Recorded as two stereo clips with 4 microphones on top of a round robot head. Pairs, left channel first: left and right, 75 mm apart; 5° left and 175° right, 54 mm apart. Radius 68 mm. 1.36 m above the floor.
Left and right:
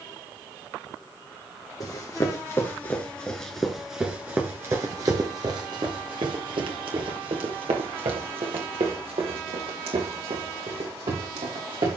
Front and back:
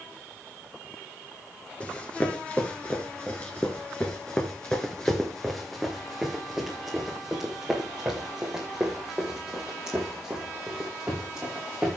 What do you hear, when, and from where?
1.8 s running footsteps: 60° left, 1.7 m; by 12.0 s 95° right, 4.5 m